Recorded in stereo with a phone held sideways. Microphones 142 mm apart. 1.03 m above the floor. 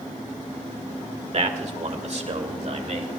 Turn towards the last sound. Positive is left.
turn(degrees=-55)  # may be behind; listen again after turning